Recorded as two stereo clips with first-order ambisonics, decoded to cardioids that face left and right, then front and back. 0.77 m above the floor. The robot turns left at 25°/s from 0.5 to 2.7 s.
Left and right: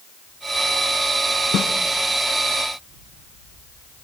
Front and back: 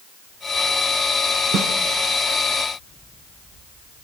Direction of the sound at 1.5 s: 135° left.